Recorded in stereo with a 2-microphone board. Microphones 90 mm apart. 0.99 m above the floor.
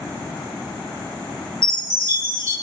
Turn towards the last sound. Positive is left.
turn(degrees=-40)  # may be behind; listen again after turning